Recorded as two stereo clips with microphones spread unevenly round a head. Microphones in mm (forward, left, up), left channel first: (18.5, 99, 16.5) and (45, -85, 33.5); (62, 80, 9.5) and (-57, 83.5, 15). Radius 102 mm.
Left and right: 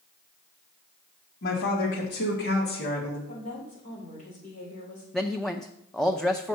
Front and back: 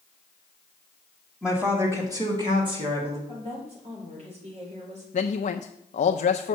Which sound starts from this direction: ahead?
A man speaking, at 5.1 s.